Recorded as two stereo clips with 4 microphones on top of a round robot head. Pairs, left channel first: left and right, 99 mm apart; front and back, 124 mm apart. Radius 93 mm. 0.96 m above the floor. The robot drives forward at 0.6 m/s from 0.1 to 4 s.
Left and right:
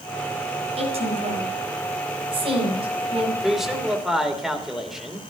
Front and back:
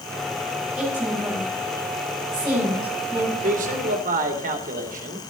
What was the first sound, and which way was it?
A woman speaking, 100° right.